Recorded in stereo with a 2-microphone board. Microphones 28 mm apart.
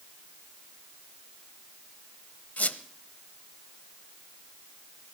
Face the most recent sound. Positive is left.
turn(degrees=65)  # may be behind; listen again after turning